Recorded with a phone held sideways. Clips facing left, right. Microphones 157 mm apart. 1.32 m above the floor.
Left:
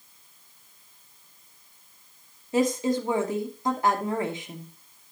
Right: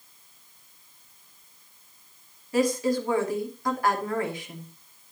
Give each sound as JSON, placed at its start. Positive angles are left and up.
{"t": 2.5, "sound": "a woman speaking", "side_deg": 25, "distance_m": 2.5}